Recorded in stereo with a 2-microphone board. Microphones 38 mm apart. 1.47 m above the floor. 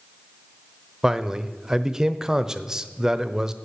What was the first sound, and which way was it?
A man speaking, 15° right (ahead or behind).